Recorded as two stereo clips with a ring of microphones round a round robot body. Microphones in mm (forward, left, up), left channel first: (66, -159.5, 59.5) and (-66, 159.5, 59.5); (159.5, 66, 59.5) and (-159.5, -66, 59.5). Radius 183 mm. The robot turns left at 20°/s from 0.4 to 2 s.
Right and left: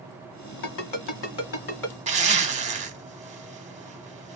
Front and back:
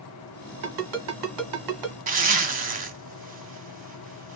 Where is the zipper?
160° left, 1.0 m.